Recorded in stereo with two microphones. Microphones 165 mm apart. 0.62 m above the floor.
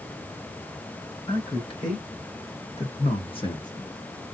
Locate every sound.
1.3 s a man speaking: 30° left (ahead or behind), 2.5 m; by 3.9 s 20° left (ahead or behind), 1.1 m